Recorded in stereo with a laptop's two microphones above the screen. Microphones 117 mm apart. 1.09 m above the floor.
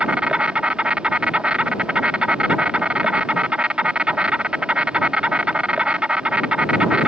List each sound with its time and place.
0.0 s an insect: 10° right (ahead or behind)